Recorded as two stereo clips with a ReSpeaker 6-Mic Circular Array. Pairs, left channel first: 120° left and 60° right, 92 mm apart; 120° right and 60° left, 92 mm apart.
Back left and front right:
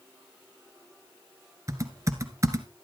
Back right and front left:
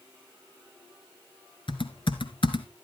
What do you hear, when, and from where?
1.7 s typing on a keyboard: 110° right, 1.4 m